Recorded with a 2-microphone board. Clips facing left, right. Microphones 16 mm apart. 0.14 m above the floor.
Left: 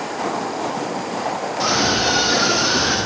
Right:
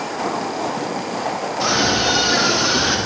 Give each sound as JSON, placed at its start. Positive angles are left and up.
{"t": 1.6, "sound": "a scream", "side_deg": 15, "distance_m": 8.0}